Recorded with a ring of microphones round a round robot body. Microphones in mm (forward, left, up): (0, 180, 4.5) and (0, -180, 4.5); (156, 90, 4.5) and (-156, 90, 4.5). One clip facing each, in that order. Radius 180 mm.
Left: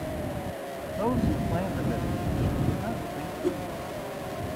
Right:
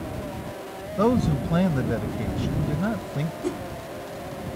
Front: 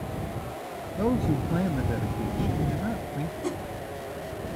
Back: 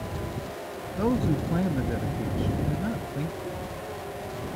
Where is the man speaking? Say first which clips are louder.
Right 5 dB, even; 95° right.